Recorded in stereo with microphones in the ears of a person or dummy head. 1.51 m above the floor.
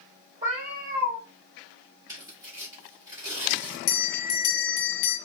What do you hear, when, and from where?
0.4 s a cat meowing: 20° right (ahead or behind), 1.1 m
2.1 s tearing paper: 20° right (ahead or behind), 1.2 m
3.9 s a bell: 45° left (ahead or behind), 0.7 m